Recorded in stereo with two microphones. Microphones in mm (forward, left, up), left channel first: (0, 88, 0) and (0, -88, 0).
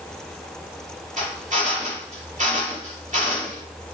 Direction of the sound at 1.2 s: 45° right (ahead or behind).